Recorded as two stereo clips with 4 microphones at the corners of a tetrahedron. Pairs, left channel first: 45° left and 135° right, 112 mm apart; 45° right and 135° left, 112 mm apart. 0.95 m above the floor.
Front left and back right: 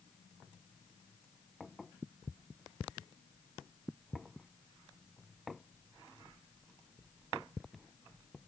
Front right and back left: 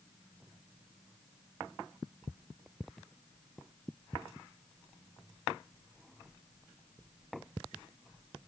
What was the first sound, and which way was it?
Only background noise.